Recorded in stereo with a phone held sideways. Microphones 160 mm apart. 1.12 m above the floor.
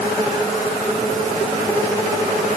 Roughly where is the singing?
No singing in this recording.